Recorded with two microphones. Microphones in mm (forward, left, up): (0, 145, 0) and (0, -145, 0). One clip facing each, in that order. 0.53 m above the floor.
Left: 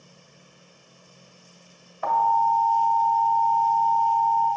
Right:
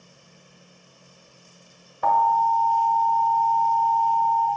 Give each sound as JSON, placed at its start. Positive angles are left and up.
{"t": 2.0, "sound": "an alarm", "side_deg": -45, "distance_m": 1.6}